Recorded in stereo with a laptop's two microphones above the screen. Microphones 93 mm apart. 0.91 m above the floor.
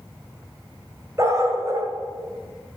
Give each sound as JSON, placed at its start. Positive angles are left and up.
{"t": 1.2, "sound": "a dog barking", "side_deg": -35, "distance_m": 2.0}